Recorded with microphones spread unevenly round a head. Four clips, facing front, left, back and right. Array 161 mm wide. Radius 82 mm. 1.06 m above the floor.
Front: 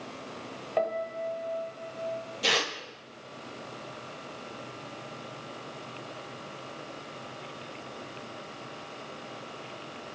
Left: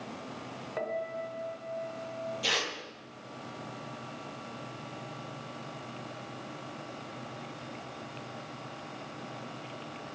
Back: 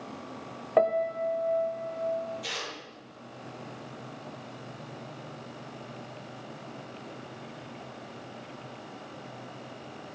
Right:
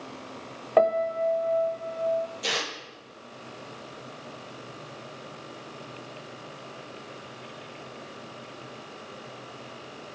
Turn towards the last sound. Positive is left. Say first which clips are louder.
# right 2 dB, front 8 dB
turn(degrees=-5)